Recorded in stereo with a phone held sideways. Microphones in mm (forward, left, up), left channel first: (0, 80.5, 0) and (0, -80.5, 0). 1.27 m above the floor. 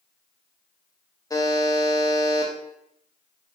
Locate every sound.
1.3 s a buzzer: 20° left (ahead or behind), 0.5 m